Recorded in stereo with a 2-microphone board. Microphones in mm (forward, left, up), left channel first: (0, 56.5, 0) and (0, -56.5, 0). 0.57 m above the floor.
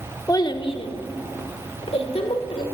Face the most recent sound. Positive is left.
turn(degrees=55)  # may be behind; listen again after turning